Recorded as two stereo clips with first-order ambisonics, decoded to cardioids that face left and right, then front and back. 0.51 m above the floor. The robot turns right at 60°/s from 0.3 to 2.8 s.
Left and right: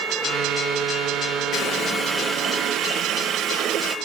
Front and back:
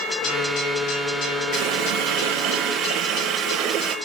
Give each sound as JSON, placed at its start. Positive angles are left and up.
{"t": 1.5, "sound": "a running tap", "azimuth_deg": 150, "distance_m": 5.0}